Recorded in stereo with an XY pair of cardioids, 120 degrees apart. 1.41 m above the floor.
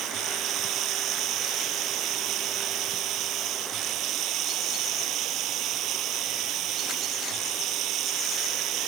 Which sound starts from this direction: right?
Running water, at 0.0 s.